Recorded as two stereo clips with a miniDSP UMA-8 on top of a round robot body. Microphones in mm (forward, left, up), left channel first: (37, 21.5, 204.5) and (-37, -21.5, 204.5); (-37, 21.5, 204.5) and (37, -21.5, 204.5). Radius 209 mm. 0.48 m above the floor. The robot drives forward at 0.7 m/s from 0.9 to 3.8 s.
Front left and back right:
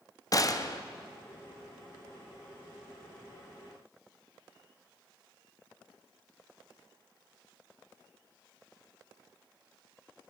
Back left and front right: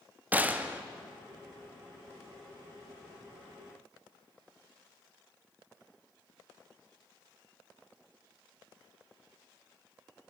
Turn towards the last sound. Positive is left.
turn(degrees=155)